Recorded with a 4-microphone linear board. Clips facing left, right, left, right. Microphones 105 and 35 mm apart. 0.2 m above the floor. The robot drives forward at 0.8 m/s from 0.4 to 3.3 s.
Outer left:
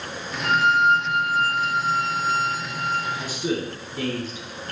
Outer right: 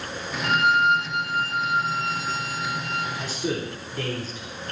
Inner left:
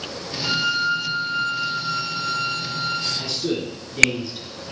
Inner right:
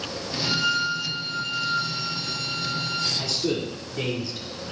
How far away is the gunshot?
No gunshot in this recording.